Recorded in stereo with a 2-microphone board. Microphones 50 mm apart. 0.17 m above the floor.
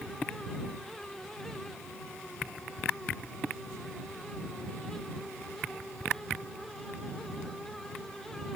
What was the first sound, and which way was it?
Only background noise.